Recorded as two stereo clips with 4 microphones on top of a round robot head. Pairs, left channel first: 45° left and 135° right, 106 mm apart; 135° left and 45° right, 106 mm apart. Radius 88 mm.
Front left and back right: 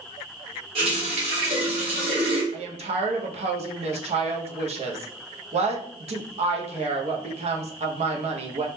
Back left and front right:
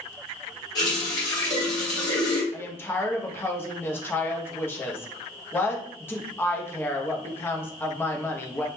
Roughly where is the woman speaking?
Behind right.